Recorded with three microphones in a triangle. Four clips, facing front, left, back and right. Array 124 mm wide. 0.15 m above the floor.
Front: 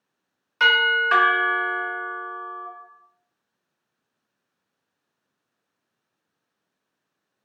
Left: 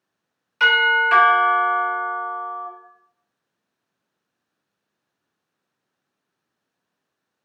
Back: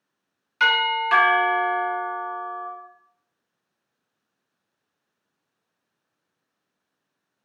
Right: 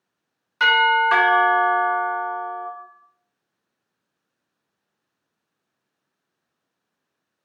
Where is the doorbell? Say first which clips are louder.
Right 1 dB, front 2 dB; 45° right, 1.6 m.